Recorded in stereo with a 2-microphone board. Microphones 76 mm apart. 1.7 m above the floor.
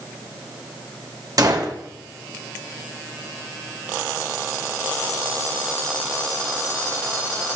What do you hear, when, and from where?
1.4 s a gunshot: 55° right (ahead or behind), 1.5 m